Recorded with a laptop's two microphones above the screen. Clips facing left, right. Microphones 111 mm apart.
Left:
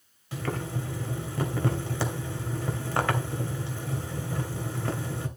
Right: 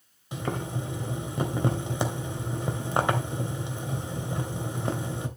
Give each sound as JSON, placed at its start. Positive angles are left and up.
{"t": 0.3, "sound": "boiling", "side_deg": -20, "distance_m": 2.5}